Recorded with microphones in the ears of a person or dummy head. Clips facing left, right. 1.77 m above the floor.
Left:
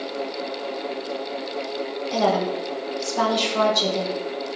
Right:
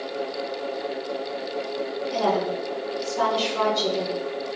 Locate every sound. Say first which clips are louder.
2.1 s a woman speaking: left 3 dB; 75° left (ahead or behind), 1.7 m